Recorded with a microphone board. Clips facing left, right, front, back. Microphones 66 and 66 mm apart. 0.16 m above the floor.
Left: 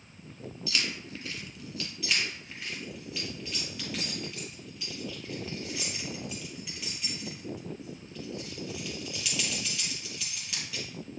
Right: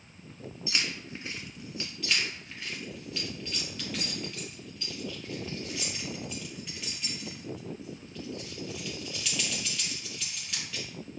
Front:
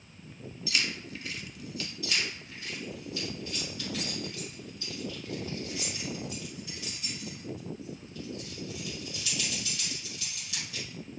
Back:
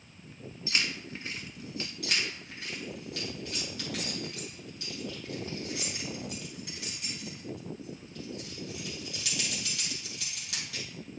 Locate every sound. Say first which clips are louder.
0.7 s keys jangling: even, even; 140° right, 1.2 m
2.0 s keys jangling: even, even; 175° left, 2.5 m